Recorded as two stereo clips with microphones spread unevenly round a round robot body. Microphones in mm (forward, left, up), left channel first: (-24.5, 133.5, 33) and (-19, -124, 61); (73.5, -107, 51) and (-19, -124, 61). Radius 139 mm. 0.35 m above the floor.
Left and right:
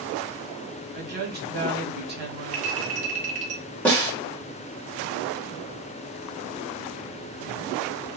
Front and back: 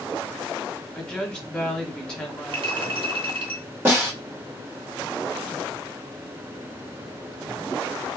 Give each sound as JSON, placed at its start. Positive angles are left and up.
{"t": 0.9, "sound": "a woman speaking", "azimuth_deg": -60, "distance_m": 1.4}
{"t": 2.5, "sound": "a clink", "azimuth_deg": -150, "distance_m": 1.0}
{"t": 3.9, "sound": "a snare drum", "azimuth_deg": 150, "distance_m": 1.5}